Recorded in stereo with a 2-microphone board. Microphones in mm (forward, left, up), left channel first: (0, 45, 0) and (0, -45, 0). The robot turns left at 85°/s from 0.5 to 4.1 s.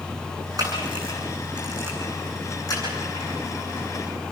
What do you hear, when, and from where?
0.6 s a camera shutter: 40° right (ahead or behind), 9 m; by 3.3 s 80° left, 9 m